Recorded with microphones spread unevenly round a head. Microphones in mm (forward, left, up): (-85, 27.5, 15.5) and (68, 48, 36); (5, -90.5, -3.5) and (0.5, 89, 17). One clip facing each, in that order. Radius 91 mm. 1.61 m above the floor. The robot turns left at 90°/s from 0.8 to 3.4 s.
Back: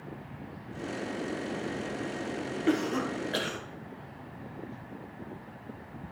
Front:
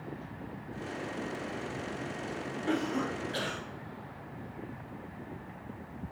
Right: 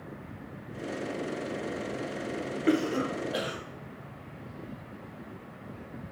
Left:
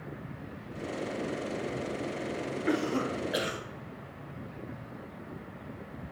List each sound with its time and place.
2.7 s a cough: 135° right, 1.6 m; by 3.6 s 160° left, 1.6 m